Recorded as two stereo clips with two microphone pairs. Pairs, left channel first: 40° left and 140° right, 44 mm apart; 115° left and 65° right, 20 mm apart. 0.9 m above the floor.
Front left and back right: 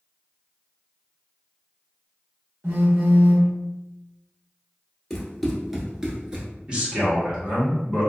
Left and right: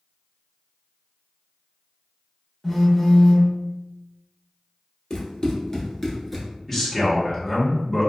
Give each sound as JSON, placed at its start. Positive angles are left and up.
{"t": 2.6, "sound": "a phone buzzing", "azimuth_deg": -160, "distance_m": 0.8}
{"t": 5.1, "sound": "running footsteps", "azimuth_deg": 115, "distance_m": 1.0}
{"t": 6.7, "sound": "a man speaking", "azimuth_deg": 170, "distance_m": 1.0}